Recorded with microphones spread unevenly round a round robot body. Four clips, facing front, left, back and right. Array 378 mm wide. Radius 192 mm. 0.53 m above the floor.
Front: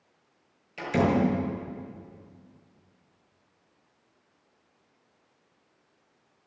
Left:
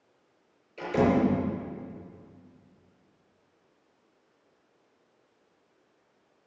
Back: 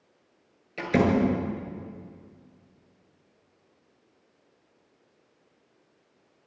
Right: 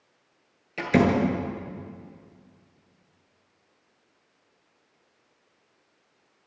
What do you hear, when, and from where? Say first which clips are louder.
0.8 s a door slam: right 2 dB, back 2 dB; 100° right, 7.5 m